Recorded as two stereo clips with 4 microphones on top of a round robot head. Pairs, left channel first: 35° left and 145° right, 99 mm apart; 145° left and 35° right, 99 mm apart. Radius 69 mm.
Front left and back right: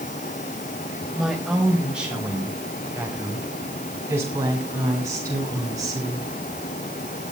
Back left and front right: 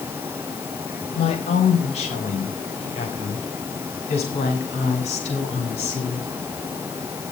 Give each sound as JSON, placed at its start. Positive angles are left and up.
{"t": 1.1, "sound": "a woman speaking", "azimuth_deg": 130, "distance_m": 4.5}